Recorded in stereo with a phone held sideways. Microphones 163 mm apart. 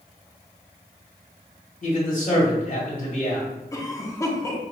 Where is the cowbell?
No cowbell in this recording.